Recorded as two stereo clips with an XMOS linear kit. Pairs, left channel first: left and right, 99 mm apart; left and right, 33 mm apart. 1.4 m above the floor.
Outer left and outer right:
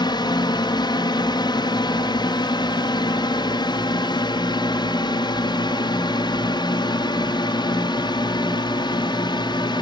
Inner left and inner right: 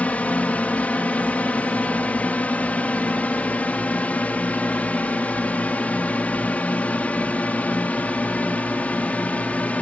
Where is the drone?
45° left (ahead or behind); by 9.8 s 50° left (ahead or behind).